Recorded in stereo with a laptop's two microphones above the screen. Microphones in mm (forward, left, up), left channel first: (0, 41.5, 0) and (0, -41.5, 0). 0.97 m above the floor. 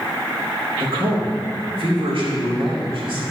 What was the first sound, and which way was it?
A man speaking, 85° right.